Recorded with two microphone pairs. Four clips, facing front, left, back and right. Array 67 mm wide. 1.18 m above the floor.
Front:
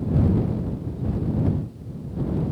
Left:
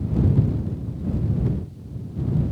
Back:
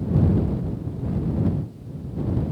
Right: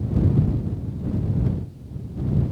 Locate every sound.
Only background noise.